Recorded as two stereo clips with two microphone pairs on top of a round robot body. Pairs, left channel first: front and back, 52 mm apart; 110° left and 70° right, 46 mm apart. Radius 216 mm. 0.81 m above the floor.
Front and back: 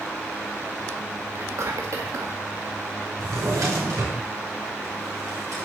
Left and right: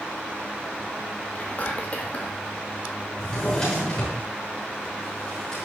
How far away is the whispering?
About 1.6 m.